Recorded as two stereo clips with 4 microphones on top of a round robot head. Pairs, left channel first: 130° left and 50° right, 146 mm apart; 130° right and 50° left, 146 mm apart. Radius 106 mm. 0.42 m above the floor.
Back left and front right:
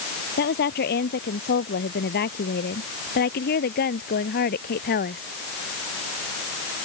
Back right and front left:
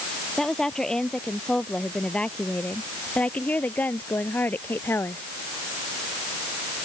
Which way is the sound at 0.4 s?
140° left.